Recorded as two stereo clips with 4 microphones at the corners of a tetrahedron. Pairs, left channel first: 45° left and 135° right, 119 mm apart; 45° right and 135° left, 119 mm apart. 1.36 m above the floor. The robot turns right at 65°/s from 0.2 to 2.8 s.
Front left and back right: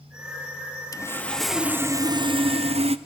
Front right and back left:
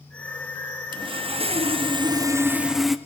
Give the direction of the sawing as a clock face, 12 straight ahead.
9 o'clock.